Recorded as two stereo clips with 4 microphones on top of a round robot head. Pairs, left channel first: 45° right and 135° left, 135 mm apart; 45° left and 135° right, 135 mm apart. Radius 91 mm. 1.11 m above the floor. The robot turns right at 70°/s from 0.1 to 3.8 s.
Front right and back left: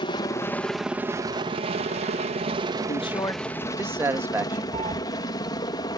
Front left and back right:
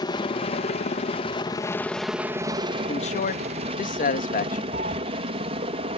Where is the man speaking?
5° right; by 4.6 s 60° left.